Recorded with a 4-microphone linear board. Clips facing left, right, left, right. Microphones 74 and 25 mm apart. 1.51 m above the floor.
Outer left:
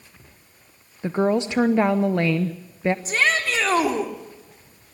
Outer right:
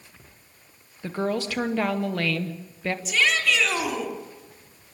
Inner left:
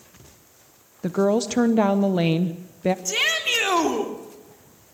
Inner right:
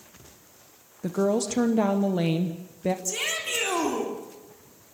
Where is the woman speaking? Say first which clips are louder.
Outer left 6 dB, inner left 4 dB; 25° left (ahead or behind), 0.7 m.